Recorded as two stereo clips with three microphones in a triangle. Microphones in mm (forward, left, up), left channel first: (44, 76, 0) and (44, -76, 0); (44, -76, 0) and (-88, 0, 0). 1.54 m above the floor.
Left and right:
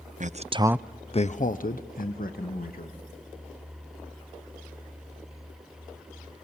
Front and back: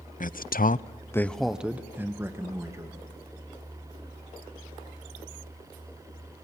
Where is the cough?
No cough in this recording.